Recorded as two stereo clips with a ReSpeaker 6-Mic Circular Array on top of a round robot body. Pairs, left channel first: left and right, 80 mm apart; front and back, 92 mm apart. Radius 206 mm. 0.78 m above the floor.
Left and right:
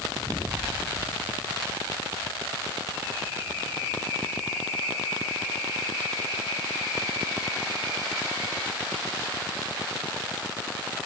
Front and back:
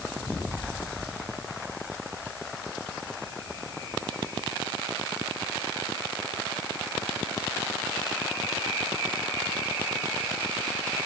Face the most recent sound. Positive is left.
No sound to turn to.